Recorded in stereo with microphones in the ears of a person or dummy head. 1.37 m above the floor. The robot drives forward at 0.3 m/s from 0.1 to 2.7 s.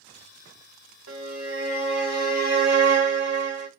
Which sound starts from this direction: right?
A violin, at 1.1 s.